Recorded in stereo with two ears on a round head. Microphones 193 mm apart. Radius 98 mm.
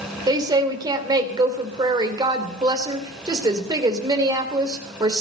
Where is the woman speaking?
20° right (ahead or behind), 3 m.